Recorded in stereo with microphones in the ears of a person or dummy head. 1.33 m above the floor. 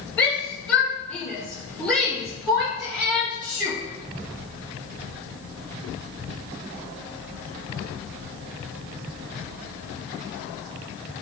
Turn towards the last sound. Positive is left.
turn(degrees=-20)  # may be behind; listen again after turning